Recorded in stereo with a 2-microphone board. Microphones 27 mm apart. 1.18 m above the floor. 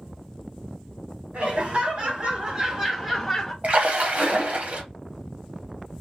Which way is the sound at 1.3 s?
50° right (ahead or behind).